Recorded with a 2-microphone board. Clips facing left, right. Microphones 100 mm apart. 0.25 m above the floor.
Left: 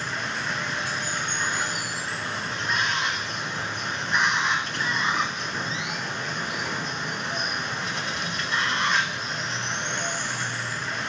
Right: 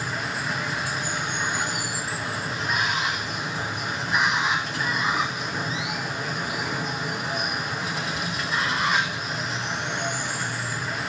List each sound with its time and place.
0.0 s running water: 5° right (ahead or behind), 1.1 m